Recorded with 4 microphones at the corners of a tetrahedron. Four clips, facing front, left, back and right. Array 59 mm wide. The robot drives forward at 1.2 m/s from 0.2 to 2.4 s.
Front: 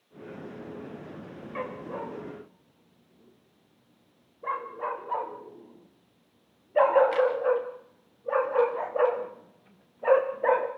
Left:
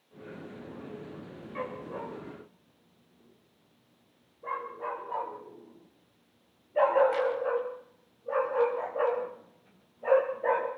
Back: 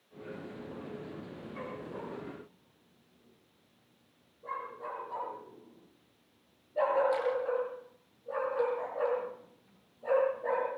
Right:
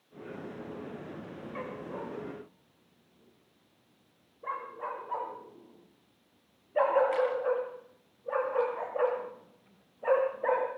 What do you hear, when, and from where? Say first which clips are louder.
1.6 s a dog barking: left 3 dB, front 7 dB; 5° right, 7 m